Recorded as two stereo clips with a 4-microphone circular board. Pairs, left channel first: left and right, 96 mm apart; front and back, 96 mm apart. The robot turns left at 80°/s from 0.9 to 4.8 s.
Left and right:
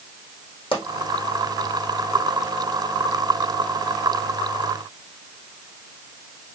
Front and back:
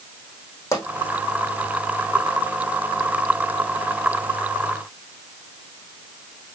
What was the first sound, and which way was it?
A pop, 60° left.